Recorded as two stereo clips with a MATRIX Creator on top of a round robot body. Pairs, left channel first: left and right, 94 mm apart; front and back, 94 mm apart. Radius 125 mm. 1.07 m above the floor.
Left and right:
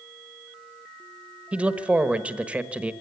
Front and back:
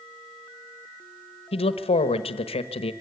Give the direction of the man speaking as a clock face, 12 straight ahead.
12 o'clock.